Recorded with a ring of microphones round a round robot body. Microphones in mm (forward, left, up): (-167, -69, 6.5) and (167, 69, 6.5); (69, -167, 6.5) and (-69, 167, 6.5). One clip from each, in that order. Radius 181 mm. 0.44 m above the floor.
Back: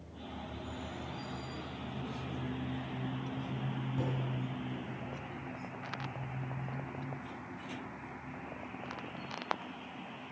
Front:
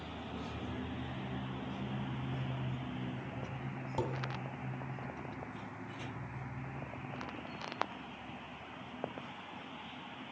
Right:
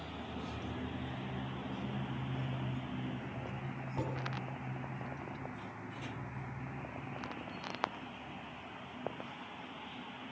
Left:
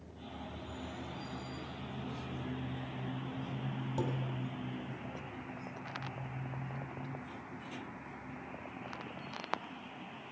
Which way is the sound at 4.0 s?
55° left.